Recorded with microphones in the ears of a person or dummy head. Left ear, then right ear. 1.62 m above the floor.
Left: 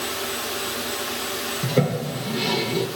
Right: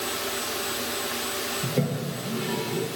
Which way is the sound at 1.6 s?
45° left (ahead or behind).